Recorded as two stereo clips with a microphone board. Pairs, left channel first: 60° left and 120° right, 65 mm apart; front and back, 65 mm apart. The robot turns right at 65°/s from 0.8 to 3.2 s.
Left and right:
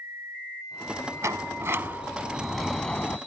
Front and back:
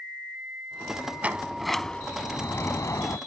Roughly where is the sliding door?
Behind right.